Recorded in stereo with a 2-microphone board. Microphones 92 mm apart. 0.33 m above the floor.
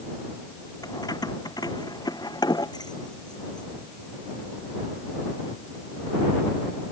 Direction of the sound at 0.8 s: 45° left (ahead or behind).